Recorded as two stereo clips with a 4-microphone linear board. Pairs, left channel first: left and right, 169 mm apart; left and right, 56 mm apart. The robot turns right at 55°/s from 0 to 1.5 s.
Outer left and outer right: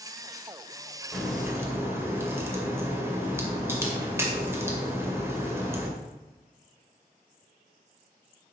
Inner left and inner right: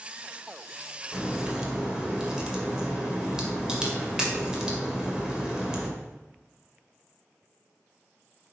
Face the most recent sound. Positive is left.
turn(degrees=-15)  # may be behind; listen again after turning